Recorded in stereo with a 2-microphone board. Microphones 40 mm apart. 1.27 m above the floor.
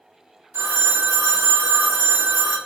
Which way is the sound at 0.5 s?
60° right (ahead or behind).